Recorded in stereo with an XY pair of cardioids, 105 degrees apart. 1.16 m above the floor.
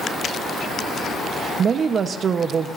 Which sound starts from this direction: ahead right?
A woman speaking, at 1.6 s.